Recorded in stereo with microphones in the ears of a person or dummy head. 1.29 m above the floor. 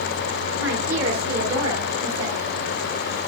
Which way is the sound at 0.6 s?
75° right (ahead or behind).